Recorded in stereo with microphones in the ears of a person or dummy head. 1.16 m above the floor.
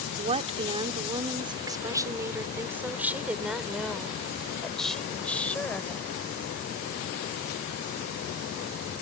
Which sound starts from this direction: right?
A woman speaking, at 0.2 s.